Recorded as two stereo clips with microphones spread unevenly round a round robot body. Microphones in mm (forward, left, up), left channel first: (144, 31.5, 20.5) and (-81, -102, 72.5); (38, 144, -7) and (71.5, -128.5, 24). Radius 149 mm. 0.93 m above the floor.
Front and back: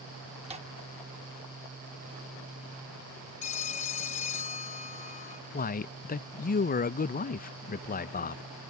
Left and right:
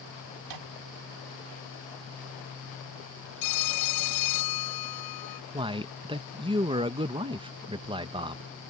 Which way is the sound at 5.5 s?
10° right.